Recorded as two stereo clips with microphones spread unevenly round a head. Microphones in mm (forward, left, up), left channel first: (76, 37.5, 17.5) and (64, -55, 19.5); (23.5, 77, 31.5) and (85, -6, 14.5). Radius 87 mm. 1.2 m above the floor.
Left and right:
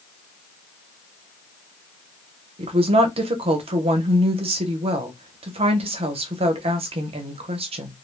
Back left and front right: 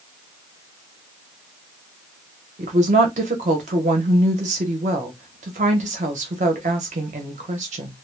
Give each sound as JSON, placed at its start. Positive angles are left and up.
{"t": 2.6, "sound": "a woman speaking", "azimuth_deg": -85, "distance_m": 0.7}